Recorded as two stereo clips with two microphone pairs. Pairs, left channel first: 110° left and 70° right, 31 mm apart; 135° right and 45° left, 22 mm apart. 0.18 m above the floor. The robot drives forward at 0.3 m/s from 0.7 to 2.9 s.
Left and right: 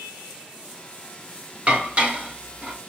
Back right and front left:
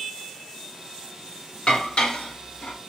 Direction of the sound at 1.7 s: 115° right.